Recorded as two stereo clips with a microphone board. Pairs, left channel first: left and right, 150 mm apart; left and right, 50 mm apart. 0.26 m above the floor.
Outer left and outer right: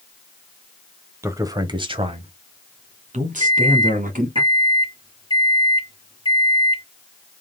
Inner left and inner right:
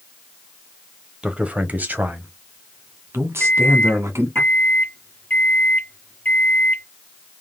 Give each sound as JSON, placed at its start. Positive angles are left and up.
{"t": 1.2, "sound": "a man speaking", "side_deg": -20, "distance_m": 1.0}
{"t": 3.4, "sound": "a microwave", "side_deg": 30, "distance_m": 0.9}